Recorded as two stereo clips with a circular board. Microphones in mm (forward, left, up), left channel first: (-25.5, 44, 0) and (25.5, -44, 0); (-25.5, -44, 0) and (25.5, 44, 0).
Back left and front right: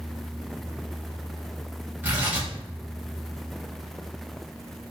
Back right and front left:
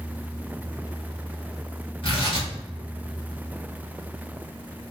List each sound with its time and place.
2.0 s tearing paper: 130° right, 1.4 m